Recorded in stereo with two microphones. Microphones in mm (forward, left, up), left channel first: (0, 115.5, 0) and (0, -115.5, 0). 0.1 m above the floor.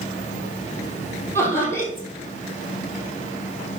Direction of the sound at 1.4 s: 10° left (ahead or behind).